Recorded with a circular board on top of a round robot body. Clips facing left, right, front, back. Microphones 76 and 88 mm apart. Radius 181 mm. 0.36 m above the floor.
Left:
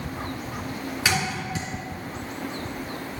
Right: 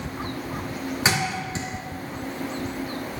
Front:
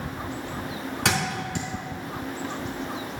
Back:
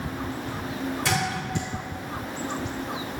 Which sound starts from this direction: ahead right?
A thud, at 1.1 s.